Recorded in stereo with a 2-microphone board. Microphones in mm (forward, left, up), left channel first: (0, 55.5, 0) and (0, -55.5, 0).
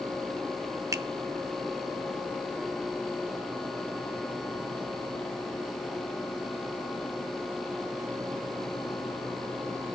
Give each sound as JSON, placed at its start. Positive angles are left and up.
{"t": 0.9, "sound": "a finger snap", "side_deg": -30, "distance_m": 0.7}